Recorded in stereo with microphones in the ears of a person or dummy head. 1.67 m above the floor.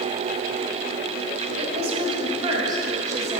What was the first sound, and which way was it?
A woman speaking, 40° right (ahead or behind).